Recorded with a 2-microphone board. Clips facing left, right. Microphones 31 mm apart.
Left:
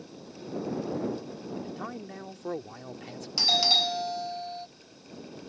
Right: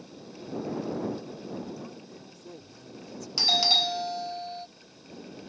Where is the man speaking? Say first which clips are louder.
Left 3 dB; 60° left (ahead or behind).